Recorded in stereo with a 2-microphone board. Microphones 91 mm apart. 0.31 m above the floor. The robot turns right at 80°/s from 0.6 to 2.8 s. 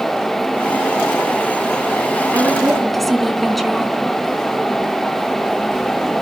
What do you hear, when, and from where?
2.3 s a woman speaking: 35° right, 3.5 m; by 4.0 s straight ahead, 3.5 m